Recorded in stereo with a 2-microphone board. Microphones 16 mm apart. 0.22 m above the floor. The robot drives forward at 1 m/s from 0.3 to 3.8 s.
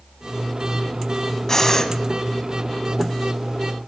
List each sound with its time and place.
1.5 s breathing: 30° left (ahead or behind), 1.8 m